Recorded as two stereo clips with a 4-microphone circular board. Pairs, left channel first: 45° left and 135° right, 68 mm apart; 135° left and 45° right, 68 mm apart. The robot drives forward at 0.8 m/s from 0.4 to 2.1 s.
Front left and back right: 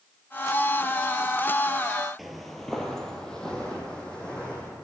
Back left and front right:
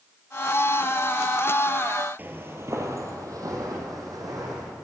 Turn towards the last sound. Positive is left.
turn(degrees=-30)